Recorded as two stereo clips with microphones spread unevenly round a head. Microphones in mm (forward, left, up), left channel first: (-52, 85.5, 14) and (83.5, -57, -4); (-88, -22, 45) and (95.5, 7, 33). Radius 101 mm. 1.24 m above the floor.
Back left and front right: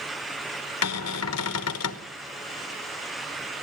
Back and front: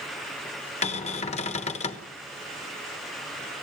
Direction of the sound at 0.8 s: 130° left.